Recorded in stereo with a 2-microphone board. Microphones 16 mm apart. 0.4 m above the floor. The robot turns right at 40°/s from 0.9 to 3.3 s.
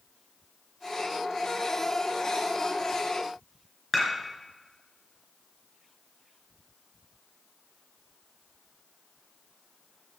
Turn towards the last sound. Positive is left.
turn(degrees=5)  # may be behind; listen again after turning